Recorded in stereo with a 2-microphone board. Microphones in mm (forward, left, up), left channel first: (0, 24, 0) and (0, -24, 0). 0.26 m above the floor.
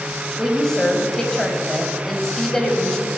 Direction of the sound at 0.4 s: 10° left (ahead or behind).